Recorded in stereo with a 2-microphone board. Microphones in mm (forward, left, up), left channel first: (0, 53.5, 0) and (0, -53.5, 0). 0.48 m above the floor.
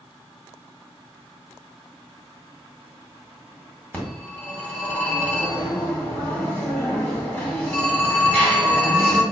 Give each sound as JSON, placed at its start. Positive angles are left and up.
{"t": 3.9, "sound": "a phone ringing", "side_deg": 20, "distance_m": 1.8}